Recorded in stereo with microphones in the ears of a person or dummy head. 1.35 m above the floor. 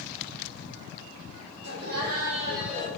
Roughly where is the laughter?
Right.